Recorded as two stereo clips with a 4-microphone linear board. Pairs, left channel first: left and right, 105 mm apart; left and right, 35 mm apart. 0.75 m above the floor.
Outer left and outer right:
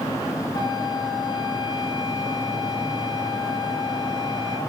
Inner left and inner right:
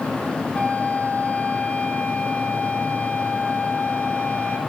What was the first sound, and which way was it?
A flute, 45° left (ahead or behind).